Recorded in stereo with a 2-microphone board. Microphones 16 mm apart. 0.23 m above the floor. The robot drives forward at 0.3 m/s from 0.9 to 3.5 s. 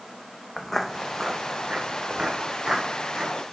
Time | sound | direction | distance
0.6 | footsteps | 25° left (ahead or behind) | 1.1 m